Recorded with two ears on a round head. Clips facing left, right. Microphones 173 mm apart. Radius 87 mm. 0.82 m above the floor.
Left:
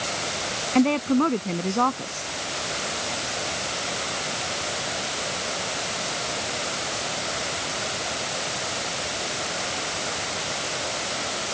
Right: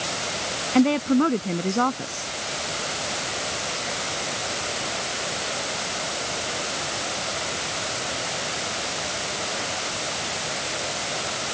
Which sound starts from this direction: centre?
A woman speaking, at 0.8 s.